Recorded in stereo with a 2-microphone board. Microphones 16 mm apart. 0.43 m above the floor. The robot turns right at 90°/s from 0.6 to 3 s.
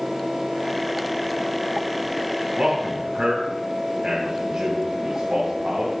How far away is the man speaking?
About 2.5 m.